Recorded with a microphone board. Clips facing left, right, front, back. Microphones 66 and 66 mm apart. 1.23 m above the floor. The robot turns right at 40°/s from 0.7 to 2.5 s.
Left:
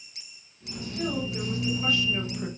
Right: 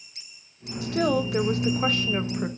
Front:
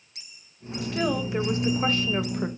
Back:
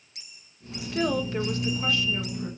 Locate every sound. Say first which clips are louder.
0.8 s a woman speaking: right 7 dB, even; 95° right, 1.4 m; by 2.5 s 30° right, 1.4 m